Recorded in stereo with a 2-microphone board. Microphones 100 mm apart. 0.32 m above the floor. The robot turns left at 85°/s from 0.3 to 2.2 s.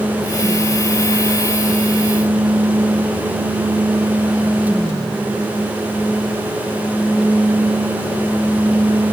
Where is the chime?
I don't hear a chime.